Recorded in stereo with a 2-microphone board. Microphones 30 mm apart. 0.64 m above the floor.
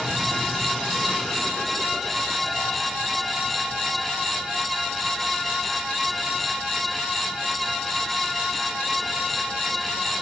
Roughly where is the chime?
No chime in this recording.